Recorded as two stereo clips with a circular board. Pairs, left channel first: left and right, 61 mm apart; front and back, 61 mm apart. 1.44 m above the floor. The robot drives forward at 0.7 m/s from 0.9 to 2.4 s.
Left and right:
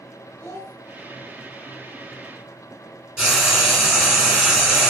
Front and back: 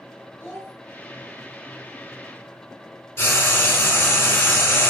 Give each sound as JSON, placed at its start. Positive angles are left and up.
{"t": 0.4, "sound": "a child speaking", "azimuth_deg": 55, "distance_m": 1.0}
{"t": 3.2, "sound": "frying", "azimuth_deg": -30, "distance_m": 1.4}